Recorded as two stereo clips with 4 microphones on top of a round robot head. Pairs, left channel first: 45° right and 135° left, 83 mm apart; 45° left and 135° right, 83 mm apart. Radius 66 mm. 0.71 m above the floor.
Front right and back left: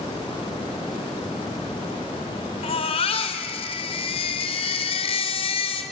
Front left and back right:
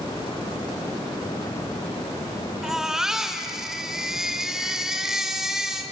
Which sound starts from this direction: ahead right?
A baby crying, at 2.6 s.